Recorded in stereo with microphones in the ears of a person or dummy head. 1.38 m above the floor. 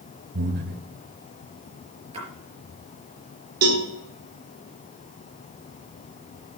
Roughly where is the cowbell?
Right.